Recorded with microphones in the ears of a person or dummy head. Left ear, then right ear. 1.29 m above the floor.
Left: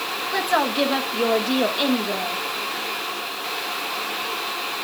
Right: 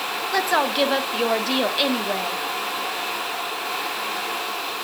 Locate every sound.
0.3 s a woman speaking: 25° right (ahead or behind), 1.2 m